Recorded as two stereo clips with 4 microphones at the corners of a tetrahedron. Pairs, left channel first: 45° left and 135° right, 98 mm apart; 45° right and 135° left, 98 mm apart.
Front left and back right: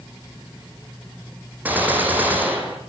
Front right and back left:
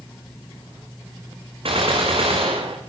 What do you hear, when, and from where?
1.6 s a gunshot: 150° left, 5.5 m